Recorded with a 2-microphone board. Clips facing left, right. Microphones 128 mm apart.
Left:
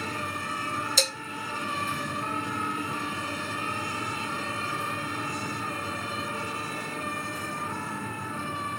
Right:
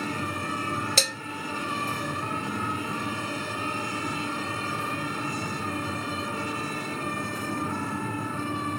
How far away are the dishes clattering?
About 1.6 m.